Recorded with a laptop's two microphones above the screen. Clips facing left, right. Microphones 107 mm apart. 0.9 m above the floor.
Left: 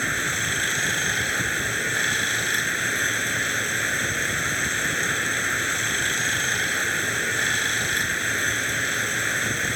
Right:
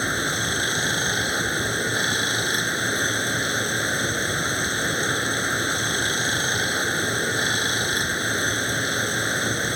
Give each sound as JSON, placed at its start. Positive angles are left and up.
{"t": 0.0, "sound": "running water", "side_deg": -20}